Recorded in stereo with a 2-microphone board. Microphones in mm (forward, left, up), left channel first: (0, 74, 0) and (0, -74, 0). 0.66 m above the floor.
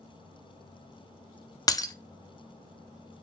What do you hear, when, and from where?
1.7 s breaking glass: 25° left (ahead or behind), 0.6 m